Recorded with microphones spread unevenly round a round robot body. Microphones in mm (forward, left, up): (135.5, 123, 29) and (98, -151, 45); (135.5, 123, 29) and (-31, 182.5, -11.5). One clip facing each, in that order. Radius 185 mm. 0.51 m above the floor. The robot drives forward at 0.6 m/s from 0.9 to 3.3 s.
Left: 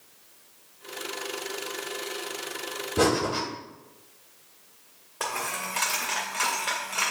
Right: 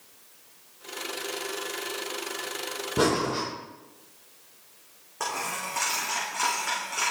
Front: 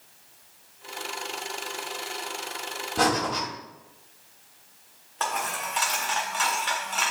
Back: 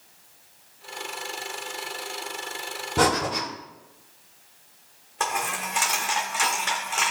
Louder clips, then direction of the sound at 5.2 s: Left 1 dB, back 1 dB; 175° right.